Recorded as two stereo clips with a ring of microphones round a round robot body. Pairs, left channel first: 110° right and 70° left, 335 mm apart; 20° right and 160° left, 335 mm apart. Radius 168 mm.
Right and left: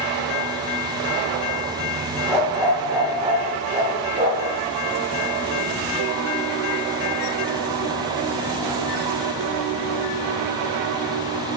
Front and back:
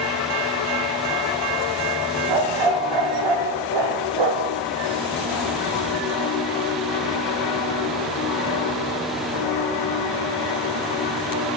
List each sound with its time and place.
2.3 s a dog barking: 155° left, 5.5 m; by 4.6 s 135° left, 5.5 m